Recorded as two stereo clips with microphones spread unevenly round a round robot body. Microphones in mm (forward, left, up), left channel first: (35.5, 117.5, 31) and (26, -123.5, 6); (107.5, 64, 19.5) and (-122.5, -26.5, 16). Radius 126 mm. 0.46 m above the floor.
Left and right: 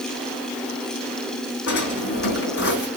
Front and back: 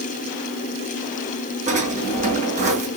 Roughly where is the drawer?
Behind left.